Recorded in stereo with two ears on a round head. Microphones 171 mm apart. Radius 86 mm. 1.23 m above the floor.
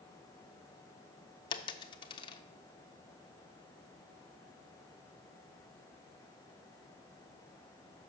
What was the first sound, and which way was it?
A dropped coin, 25° left (ahead or behind).